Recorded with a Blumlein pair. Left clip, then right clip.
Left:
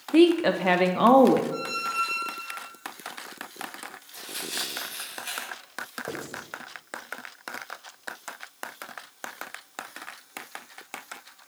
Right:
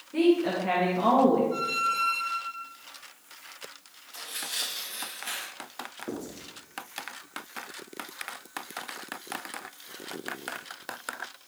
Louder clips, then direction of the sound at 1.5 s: Right 2 dB; 20° right.